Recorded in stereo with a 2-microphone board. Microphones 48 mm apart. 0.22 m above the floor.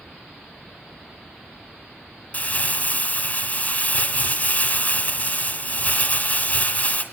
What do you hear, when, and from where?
2.3 s crumpling: 35° left (ahead or behind), 1.6 m